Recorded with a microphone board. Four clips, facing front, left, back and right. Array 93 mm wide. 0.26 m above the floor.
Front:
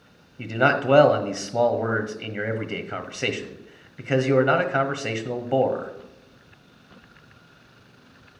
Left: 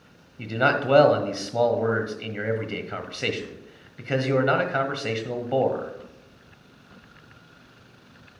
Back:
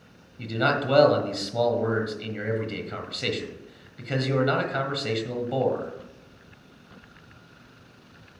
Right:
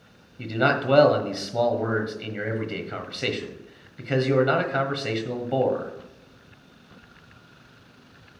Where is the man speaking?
15° left, 1.2 m.